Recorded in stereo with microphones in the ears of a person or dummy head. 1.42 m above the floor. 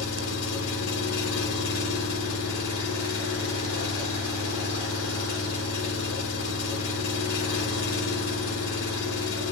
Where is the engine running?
70° left (ahead or behind), 1.3 m.